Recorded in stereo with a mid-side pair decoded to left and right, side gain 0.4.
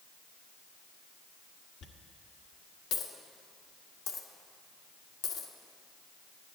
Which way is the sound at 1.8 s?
70° left.